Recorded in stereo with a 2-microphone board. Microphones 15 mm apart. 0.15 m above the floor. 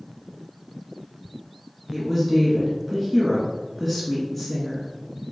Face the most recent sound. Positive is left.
turn(degrees=5)  # may be behind; listen again after turning